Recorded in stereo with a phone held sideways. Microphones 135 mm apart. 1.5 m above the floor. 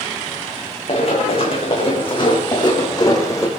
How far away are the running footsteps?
About 6 m.